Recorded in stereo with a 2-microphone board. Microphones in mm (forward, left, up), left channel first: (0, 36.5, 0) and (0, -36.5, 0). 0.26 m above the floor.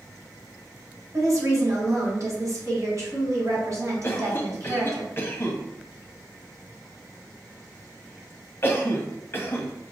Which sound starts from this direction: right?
A woman speaking, at 1.1 s.